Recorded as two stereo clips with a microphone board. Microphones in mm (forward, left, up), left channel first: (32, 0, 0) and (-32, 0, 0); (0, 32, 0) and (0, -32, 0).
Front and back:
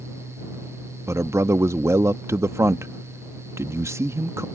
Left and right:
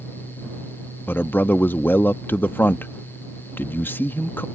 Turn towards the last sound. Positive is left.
turn(degrees=145)